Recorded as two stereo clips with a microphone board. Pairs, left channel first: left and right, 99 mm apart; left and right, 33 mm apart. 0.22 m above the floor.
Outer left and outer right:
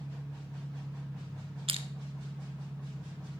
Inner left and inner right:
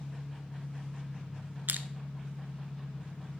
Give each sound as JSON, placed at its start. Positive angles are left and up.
{"t": 0.0, "sound": "an engine running", "side_deg": 5, "distance_m": 2.5}
{"t": 1.7, "sound": "crushing", "side_deg": -75, "distance_m": 0.6}